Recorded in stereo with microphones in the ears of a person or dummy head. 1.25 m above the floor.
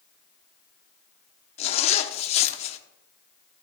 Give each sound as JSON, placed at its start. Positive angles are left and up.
{"t": 1.6, "sound": "a zipper", "side_deg": 35, "distance_m": 0.9}